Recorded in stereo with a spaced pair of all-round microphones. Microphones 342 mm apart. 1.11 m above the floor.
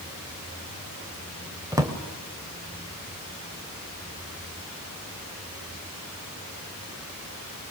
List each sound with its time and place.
1.7 s a drawer: 10° right (ahead or behind), 1.9 m